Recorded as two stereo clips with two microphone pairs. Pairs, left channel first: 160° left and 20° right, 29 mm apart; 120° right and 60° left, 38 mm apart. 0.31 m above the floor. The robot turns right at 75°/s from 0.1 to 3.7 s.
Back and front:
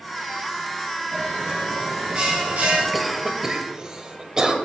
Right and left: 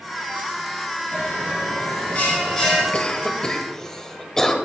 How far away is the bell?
About 4 m.